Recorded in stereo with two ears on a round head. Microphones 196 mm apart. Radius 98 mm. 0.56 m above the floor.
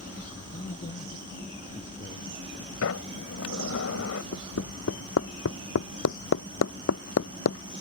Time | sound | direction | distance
0.5 | a man speaking | 35° left (ahead or behind) | ?
2.8 | a sliding door | 70° left (ahead or behind) | ?
4.3 | hammering | 65° left (ahead or behind) | ?